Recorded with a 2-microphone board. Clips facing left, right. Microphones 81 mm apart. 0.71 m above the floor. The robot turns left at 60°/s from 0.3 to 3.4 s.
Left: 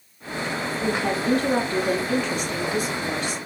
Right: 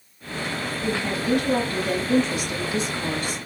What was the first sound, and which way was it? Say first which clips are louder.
A woman speaking: left 2 dB; 85° left.